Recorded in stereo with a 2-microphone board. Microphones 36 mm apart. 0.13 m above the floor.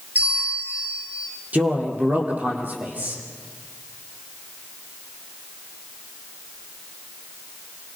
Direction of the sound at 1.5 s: 45° right (ahead or behind).